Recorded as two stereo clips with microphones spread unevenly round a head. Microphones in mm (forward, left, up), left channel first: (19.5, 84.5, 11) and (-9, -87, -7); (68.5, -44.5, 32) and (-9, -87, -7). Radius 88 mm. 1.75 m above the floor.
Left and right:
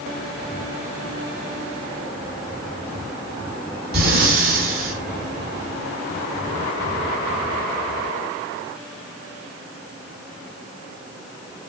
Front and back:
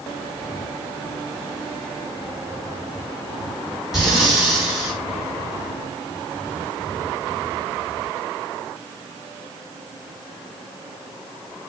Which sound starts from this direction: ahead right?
Breathing, at 3.9 s.